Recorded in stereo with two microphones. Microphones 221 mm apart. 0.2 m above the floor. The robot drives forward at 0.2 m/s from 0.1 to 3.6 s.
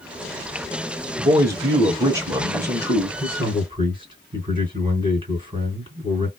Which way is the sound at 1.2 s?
15° right (ahead or behind).